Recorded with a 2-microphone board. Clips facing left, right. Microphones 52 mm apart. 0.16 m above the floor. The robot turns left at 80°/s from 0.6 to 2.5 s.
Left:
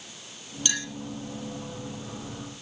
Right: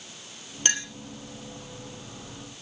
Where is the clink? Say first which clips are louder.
Right 3 dB; 40° right (ahead or behind), 3 m; by 0.9 s 25° right (ahead or behind), 3 m.